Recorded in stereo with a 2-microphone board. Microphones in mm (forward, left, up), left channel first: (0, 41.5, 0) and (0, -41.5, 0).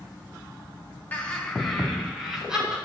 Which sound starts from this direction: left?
Laughter, at 1.1 s.